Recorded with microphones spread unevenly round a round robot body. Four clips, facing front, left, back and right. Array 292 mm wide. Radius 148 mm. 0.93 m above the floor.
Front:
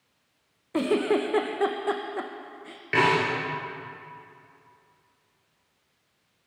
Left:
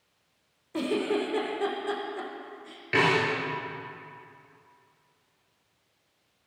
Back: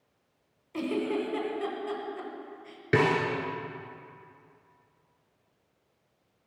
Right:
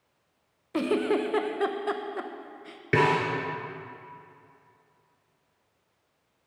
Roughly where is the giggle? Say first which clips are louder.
Right 2 dB, front 6 dB; ahead.